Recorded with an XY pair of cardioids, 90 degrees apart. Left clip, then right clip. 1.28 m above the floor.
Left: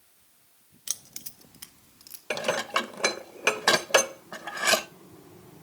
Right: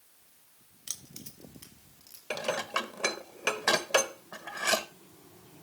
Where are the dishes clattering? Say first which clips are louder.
Left 4 dB; 45° left, 0.8 m.